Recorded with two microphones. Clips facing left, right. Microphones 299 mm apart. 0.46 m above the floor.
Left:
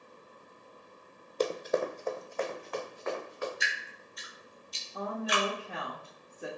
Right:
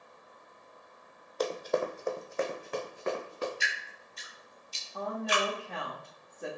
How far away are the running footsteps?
About 0.6 m.